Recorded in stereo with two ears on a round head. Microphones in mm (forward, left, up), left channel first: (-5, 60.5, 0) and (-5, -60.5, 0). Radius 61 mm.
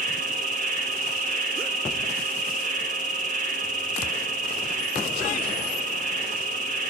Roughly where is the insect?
Right.